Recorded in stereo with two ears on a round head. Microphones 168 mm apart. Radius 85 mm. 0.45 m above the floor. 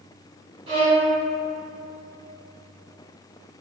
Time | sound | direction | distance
0.7 | a violin | 25° right (ahead or behind) | 0.9 m